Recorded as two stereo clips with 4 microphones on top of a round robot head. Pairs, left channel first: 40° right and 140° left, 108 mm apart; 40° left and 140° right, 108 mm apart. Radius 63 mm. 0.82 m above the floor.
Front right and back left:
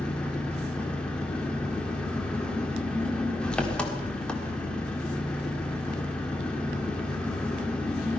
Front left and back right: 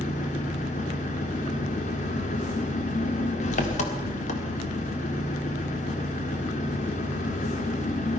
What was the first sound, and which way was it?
An engine running, 45° left.